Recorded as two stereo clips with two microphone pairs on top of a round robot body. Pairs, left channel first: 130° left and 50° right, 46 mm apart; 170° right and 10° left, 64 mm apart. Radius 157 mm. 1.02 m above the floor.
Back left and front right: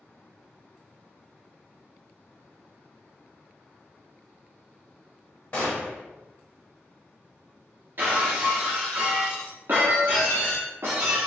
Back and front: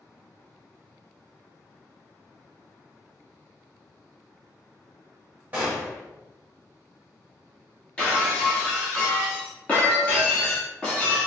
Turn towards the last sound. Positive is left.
turn(degrees=-95)